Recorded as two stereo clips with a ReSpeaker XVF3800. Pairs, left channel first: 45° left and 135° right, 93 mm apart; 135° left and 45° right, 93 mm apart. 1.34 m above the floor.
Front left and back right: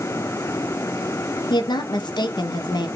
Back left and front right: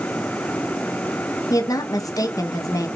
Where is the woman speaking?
85° left, 0.5 m.